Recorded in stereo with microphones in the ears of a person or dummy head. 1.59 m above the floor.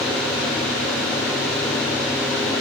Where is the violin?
I don't hear a violin.